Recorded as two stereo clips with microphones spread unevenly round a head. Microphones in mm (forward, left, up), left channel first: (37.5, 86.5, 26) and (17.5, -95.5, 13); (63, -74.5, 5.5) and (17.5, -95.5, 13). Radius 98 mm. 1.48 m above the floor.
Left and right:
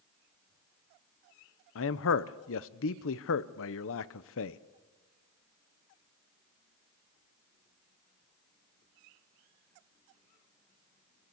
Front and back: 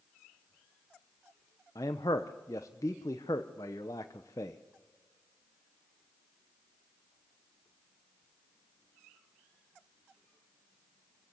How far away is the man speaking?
About 0.8 m.